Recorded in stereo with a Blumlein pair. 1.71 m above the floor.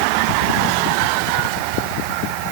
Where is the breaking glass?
I don't hear breaking glass.